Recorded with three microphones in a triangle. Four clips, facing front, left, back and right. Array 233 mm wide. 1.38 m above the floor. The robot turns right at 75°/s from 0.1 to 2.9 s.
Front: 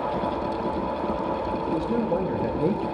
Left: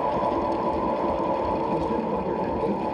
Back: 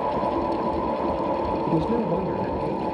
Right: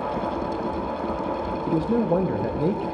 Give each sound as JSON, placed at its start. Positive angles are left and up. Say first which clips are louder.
{"t": 1.7, "sound": "a man speaking", "louder": "right 3 dB, back 1 dB", "azimuth_deg": -135, "distance_m": 1.2}